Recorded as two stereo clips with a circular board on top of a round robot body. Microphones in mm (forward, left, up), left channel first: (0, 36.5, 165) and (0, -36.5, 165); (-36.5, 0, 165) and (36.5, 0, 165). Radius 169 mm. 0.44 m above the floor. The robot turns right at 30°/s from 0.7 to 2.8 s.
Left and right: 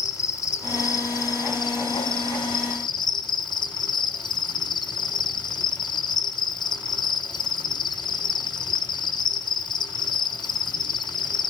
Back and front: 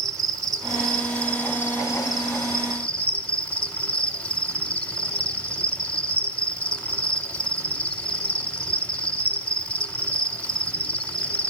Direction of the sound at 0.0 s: 40° left.